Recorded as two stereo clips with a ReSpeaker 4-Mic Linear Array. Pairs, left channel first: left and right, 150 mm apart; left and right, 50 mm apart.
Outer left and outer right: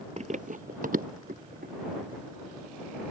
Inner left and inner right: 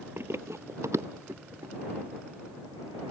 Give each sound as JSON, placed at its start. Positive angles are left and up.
{"t": 0.2, "sound": "running footsteps", "side_deg": -50}